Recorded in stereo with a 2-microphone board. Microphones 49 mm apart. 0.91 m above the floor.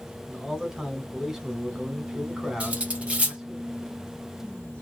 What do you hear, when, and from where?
0.3 s a man speaking: 10° right (ahead or behind), 1.2 m
2.6 s cutlery clinking: 30° right (ahead or behind), 0.9 m